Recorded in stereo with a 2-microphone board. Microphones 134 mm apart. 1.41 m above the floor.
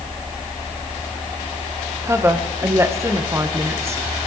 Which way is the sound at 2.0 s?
20° right (ahead or behind).